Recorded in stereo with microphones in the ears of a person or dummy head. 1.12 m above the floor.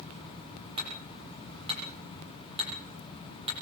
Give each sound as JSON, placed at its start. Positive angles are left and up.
{"t": 0.8, "sound": "hammering", "side_deg": -30, "distance_m": 8.5}